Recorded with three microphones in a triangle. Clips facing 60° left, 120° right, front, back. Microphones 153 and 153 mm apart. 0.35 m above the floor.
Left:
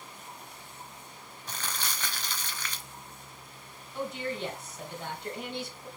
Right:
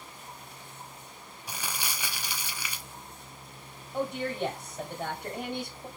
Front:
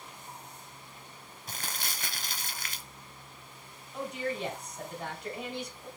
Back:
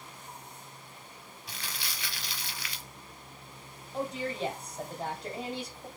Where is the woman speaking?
135° right, 1.9 m.